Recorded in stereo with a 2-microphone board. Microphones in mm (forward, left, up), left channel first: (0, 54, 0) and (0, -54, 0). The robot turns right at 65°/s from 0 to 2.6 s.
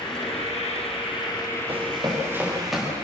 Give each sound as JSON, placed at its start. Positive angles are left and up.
{"t": 0.0, "sound": "an insect", "azimuth_deg": 50, "distance_m": 6.0}
{"t": 1.7, "sound": "running footsteps", "side_deg": -65, "distance_m": 7.0}